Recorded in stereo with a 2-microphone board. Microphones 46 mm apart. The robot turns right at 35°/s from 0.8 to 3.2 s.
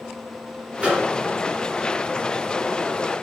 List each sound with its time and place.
0.8 s a microwave: 25° right (ahead or behind), 1.3 m; by 1.1 s 20° right (ahead or behind), 1.3 m